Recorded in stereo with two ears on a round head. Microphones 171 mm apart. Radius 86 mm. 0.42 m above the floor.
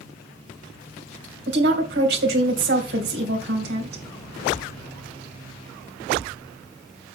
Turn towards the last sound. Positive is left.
turn(degrees=-60)  # may be behind; listen again after turning